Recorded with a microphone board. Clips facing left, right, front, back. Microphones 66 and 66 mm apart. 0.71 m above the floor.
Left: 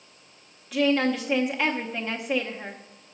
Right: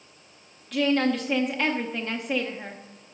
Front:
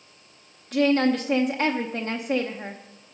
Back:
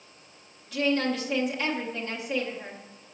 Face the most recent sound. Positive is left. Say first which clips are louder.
# even, front 6 dB
turn(degrees=5)